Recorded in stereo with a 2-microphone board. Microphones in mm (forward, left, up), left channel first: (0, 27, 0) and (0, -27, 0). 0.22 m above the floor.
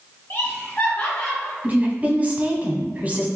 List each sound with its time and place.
0.3 s laughter: 35° left (ahead or behind), 1.5 m; by 1.5 s 10° left (ahead or behind), 1.9 m
1.6 s a woman speaking: 35° right (ahead or behind), 1.4 m